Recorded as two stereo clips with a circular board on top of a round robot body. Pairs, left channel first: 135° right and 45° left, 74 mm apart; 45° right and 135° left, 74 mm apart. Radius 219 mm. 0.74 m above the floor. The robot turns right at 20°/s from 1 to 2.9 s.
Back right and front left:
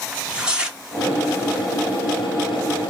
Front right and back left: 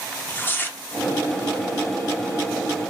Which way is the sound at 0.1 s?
20° right.